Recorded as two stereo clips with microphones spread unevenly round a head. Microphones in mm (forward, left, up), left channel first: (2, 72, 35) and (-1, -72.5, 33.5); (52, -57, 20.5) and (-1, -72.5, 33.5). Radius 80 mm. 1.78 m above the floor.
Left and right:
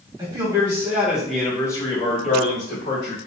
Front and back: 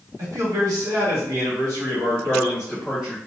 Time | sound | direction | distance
0.2 | a man speaking | 155° right | 1.3 m